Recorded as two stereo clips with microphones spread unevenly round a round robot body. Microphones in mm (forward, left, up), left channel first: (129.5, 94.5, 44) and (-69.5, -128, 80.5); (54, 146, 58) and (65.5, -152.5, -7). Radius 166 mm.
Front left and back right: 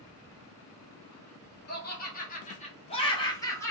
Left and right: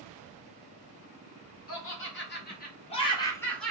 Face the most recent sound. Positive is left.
turn(degrees=-15)